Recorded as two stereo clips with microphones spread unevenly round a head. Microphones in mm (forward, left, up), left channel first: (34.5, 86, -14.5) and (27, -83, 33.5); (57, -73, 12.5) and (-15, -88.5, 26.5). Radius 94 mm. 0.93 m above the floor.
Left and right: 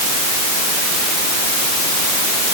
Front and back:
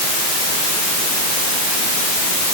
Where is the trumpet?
I don't hear a trumpet.